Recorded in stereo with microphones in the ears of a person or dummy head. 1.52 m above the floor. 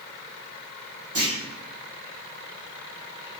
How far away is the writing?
I don't hear writing.